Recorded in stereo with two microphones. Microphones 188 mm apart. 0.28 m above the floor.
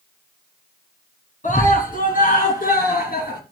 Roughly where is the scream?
Left.